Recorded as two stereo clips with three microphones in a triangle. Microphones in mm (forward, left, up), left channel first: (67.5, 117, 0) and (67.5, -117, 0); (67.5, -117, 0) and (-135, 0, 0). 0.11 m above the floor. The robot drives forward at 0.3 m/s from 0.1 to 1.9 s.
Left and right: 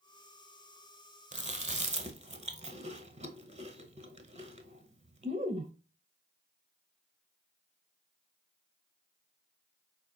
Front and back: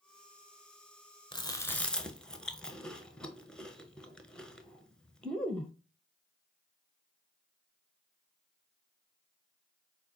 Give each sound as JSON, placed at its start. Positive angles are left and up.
{"t": 1.3, "sound": "chewing", "azimuth_deg": -80, "distance_m": 0.5}